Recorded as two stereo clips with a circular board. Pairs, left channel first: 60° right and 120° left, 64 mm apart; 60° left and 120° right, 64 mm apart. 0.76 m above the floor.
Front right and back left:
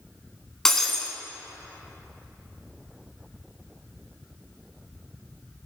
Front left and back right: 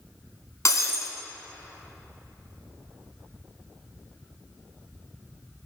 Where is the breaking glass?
25° left, 1.8 m.